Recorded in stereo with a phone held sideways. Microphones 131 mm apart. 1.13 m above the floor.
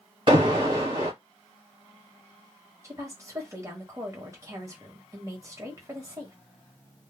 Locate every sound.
0.3 s an alarm: 40° right (ahead or behind), 1.4 m
2.8 s a woman speaking: 25° right (ahead or behind), 1.2 m